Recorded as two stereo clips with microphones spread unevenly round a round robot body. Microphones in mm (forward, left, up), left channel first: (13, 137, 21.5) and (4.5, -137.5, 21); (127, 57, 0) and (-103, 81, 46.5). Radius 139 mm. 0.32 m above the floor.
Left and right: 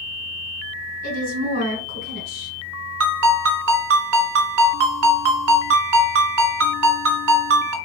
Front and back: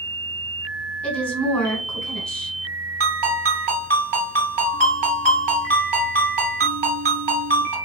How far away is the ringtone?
About 1.5 m.